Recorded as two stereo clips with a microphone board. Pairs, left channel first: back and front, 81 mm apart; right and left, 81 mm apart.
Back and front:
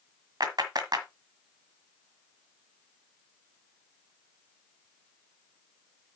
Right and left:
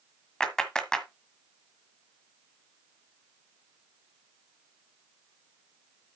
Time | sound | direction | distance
0.4 | a clap | 10° right | 1.6 m